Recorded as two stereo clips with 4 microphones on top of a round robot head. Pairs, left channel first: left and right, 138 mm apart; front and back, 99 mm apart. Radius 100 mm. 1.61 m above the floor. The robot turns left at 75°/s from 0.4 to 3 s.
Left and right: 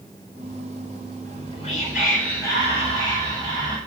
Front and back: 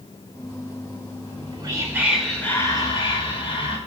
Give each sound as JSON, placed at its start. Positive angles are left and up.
{"t": 1.2, "sound": "whispering", "azimuth_deg": 160, "distance_m": 6.0}